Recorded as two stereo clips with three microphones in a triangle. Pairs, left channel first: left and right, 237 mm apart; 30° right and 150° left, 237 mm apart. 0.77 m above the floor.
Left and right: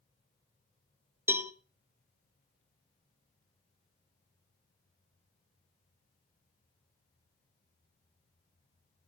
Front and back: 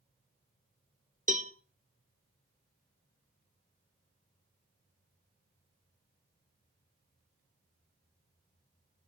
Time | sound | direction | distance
1.3 | a cowbell | 165° right | 0.7 m